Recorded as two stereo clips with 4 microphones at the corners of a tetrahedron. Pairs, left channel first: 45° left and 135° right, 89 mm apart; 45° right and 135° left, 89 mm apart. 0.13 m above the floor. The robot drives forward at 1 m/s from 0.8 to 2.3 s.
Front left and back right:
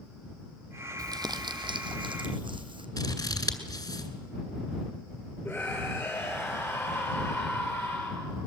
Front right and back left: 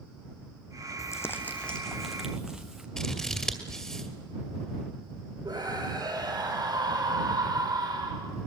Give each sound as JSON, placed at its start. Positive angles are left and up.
{"t": 1.0, "sound": "crumpling", "azimuth_deg": -95, "distance_m": 1.2}
{"t": 3.0, "sound": "scissors", "azimuth_deg": 35, "distance_m": 2.0}
{"t": 5.5, "sound": "a scream", "azimuth_deg": 120, "distance_m": 3.0}